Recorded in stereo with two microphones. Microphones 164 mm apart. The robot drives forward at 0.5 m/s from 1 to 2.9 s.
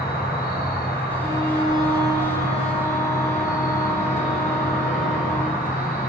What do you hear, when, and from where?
0.0 s an insect: 80° left, 1.7 m; by 6.1 s 55° left (ahead or behind), 2.0 m
1.2 s a violin: 35° right (ahead or behind), 0.8 m; by 5.6 s 15° right (ahead or behind), 1.6 m